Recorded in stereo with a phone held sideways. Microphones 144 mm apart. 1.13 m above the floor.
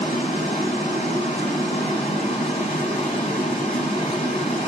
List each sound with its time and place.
0.0 s running water: 50° left (ahead or behind), 6.5 m